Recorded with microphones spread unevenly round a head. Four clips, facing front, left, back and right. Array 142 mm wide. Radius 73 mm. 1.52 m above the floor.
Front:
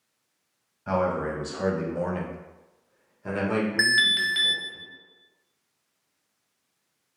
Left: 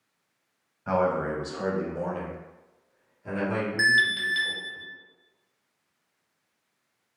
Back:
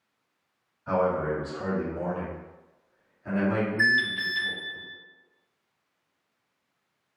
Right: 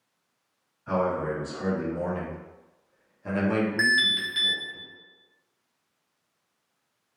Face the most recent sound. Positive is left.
turn(degrees=15)